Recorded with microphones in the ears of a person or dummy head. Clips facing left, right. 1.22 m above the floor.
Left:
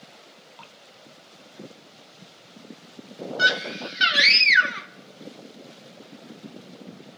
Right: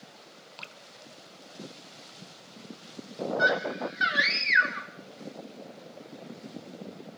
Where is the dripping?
30° right (ahead or behind), 0.7 m.